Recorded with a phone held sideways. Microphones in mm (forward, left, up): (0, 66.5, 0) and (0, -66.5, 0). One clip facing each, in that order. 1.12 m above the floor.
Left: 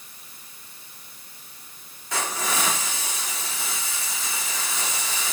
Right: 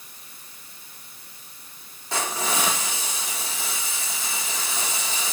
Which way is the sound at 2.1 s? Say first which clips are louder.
Right 1 dB; 30° right (ahead or behind).